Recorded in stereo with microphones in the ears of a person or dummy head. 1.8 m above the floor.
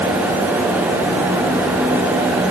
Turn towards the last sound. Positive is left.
No sound to turn to.